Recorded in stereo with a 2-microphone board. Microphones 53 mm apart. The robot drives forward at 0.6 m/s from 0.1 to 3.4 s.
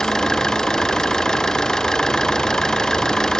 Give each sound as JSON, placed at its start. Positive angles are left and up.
{"t": 0.0, "sound": "an engine running", "side_deg": 10}